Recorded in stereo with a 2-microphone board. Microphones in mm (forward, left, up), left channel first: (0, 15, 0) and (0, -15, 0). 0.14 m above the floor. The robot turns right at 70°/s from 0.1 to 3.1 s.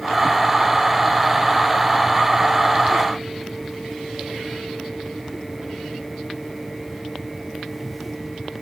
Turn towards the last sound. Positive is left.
No sound to turn to.